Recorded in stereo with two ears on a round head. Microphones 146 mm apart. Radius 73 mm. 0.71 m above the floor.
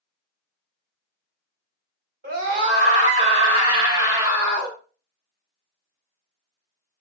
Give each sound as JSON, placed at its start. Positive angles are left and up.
{"t": 2.2, "sound": "a scream", "side_deg": -60, "distance_m": 1.9}